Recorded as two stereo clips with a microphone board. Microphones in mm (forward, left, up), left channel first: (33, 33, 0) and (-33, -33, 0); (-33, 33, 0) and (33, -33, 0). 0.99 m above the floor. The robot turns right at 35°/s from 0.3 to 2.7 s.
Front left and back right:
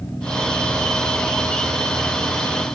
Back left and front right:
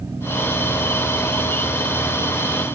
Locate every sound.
Only background noise.